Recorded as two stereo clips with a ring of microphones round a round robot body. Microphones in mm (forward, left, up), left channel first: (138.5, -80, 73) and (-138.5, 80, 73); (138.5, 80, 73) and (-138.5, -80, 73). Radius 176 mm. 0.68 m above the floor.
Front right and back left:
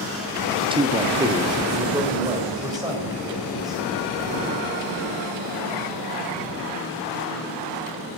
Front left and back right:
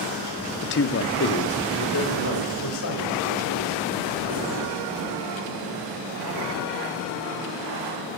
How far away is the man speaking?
About 0.8 m.